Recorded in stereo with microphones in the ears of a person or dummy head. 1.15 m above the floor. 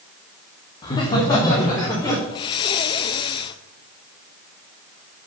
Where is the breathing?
30° left (ahead or behind), 0.5 m.